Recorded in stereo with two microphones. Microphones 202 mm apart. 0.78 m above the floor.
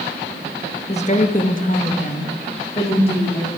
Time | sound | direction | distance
0.9 | a woman speaking | 30° left (ahead or behind) | 0.9 m